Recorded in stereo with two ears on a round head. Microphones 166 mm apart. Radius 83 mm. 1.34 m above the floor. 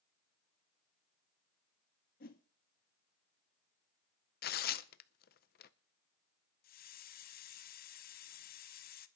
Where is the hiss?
50° left (ahead or behind), 0.9 m.